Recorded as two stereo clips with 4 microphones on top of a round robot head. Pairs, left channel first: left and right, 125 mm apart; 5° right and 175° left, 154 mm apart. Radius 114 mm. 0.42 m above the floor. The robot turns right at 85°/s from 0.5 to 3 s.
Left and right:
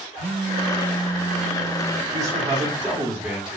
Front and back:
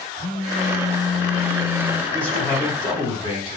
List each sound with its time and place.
0.2 s a phone buzzing: 60° right, 0.6 m; by 2.0 s 70° left, 0.6 m
2.1 s a man speaking: 85° right, 1.5 m; by 3.6 s 15° right, 1.5 m